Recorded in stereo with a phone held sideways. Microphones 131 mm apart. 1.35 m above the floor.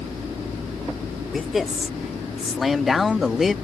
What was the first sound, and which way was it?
A man speaking, centre (ahead or behind).